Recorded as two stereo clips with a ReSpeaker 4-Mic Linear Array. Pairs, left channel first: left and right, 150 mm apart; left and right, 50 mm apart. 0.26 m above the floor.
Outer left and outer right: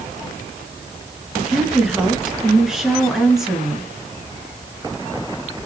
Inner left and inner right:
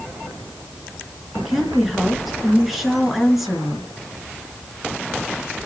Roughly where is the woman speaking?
Centre.